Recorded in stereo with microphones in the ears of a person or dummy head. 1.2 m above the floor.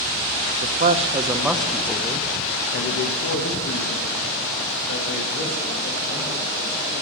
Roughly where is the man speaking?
Right.